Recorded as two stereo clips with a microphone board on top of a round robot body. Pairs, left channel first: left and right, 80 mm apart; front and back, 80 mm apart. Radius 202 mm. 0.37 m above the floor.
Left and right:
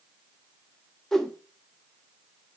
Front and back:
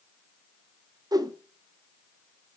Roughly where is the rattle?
No rattle in this recording.